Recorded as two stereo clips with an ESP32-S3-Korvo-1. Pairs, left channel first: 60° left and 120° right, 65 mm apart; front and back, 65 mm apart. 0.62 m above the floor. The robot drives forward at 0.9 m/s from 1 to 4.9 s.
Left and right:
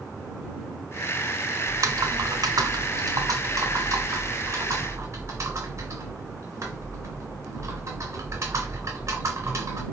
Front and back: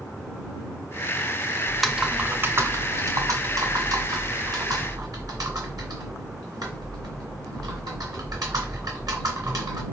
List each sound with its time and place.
1.7 s typing on a keyboard: 80° right, 0.8 m; by 9.8 s 165° right, 3 m